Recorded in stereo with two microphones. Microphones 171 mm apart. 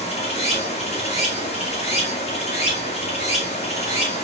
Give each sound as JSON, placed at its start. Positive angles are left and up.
{"t": 0.0, "sound": "running water", "side_deg": 40, "distance_m": 4.0}